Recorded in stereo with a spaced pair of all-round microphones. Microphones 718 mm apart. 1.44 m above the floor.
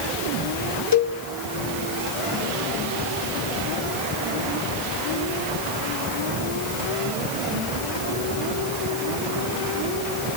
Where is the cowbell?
35° left (ahead or behind), 1.2 m.